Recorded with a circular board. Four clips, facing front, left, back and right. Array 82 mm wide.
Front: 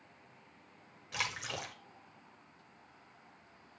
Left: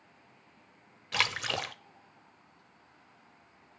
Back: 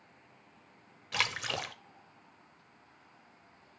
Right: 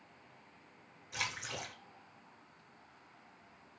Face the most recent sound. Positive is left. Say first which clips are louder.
# left 9 dB, back 5 dB
turn(degrees=115)